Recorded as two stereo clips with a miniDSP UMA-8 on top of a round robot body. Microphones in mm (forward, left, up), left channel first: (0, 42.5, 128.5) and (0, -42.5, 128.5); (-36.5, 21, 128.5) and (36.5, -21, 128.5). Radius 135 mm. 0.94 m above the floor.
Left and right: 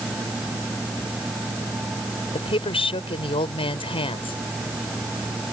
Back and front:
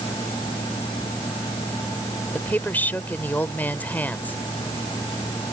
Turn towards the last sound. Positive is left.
turn(degrees=80)